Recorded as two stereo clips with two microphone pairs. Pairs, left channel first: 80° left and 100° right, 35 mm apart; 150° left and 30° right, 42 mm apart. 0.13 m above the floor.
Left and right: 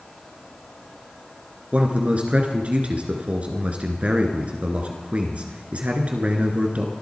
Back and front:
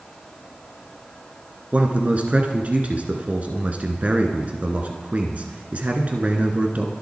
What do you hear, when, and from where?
1.7 s a man speaking: 70° right, 2 m